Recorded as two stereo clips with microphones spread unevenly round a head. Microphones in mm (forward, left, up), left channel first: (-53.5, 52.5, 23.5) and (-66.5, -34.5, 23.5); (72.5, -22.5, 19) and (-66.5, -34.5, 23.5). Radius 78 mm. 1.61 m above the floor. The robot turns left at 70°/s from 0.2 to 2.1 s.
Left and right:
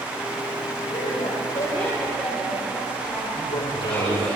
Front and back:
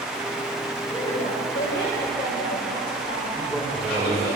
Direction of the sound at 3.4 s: 95° left.